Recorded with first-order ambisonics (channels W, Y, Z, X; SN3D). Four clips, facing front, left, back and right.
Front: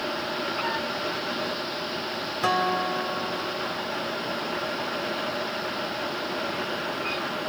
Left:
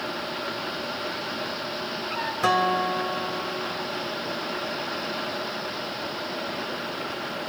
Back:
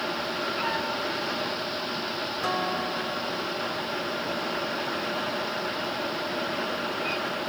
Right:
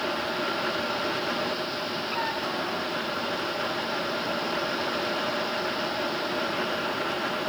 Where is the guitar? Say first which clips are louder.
Left 7 dB, front 5 dB; 65° left.